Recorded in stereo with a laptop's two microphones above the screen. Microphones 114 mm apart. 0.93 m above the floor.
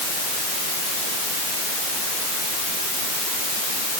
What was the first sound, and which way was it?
Only background noise.